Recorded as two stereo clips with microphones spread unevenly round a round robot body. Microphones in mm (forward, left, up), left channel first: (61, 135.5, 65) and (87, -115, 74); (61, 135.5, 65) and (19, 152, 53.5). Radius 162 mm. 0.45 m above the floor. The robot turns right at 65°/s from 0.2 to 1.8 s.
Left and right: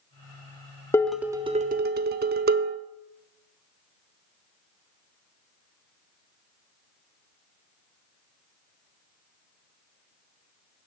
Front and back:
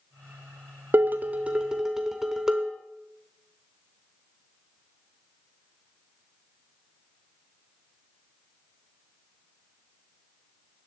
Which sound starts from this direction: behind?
Dishes clattering, at 0.9 s.